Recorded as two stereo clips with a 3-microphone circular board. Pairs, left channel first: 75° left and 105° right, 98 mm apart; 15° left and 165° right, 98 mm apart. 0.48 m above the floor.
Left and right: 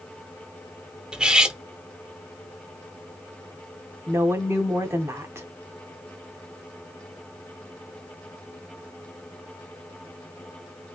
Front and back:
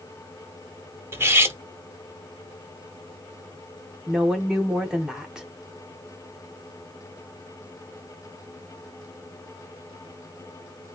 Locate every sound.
1.1 s cutlery clinking: 175° right, 0.5 m
4.1 s a woman speaking: 90° right, 1.0 m